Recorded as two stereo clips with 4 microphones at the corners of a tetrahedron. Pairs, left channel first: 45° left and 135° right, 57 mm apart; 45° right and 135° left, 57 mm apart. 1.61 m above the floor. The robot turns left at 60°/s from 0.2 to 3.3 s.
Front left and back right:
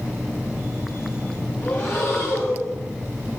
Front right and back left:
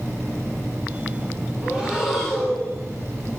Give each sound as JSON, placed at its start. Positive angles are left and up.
{"t": 1.6, "sound": "breathing", "azimuth_deg": 80, "distance_m": 1.9}